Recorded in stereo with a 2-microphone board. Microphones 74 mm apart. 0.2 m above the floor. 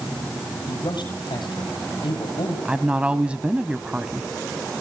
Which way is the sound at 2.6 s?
15° right (ahead or behind).